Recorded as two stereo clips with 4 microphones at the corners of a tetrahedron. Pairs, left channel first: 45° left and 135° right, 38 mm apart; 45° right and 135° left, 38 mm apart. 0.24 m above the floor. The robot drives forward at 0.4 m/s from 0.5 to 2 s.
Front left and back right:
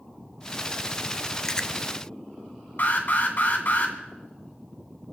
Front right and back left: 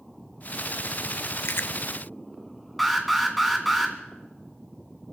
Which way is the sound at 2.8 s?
45° left.